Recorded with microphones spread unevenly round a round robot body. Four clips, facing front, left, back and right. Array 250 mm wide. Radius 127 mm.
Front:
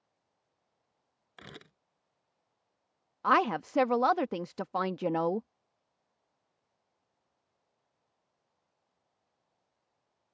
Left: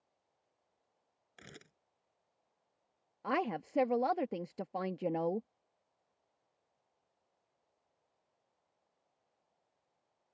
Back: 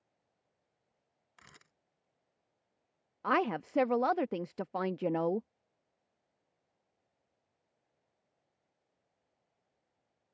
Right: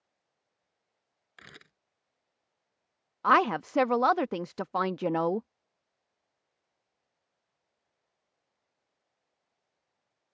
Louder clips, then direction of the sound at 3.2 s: Right 11 dB, front 4 dB; 65° right.